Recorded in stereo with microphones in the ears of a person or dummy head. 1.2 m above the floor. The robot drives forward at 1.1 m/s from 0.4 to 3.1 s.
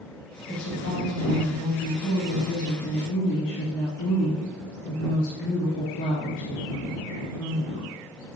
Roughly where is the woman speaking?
Left.